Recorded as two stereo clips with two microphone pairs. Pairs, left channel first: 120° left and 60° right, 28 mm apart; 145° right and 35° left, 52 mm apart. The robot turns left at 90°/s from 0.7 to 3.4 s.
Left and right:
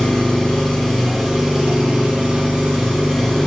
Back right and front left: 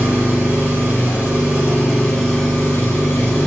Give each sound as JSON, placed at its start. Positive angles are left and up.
{"t": 0.0, "sound": "an engine running", "azimuth_deg": 65, "distance_m": 1.4}